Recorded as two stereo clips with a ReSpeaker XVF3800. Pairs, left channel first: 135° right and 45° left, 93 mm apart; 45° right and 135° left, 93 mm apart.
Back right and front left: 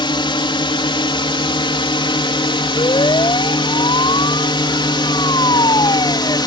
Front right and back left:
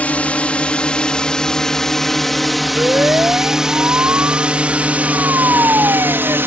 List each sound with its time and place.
0.0 s a drone: 115° right; by 6.5 s 165° right
2.8 s a siren: 160° right; by 6.4 s 170° right